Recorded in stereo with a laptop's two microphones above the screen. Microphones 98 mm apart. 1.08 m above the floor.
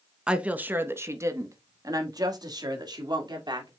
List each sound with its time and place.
0.3 s a woman speaking: 10° right (ahead or behind), 1.1 m; by 3.7 s 50° right (ahead or behind), 3 m